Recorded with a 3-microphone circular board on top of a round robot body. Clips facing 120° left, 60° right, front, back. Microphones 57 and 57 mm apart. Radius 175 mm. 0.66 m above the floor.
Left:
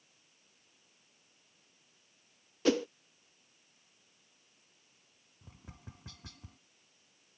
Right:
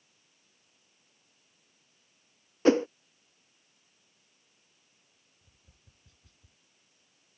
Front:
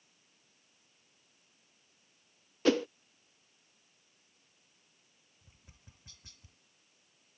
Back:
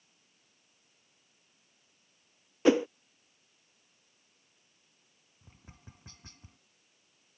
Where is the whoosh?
110° right.